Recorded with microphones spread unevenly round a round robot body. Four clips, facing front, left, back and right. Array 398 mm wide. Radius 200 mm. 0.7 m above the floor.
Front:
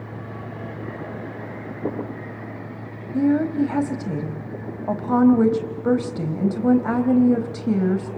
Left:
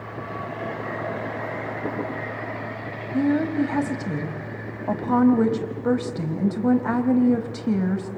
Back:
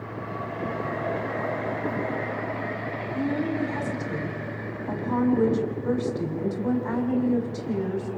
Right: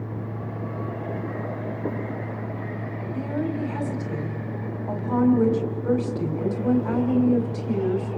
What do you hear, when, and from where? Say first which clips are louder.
3.1 s a woman speaking: left 7 dB, front 8 dB; 40° left, 3.5 m